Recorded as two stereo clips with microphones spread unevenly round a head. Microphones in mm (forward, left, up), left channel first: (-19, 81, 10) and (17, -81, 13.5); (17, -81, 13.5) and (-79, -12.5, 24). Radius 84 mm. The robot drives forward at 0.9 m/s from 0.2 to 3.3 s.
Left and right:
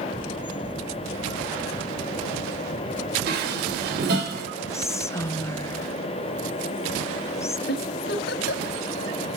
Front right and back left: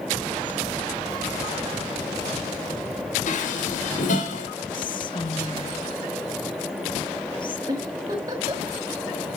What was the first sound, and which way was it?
Dishes clattering, 45° right.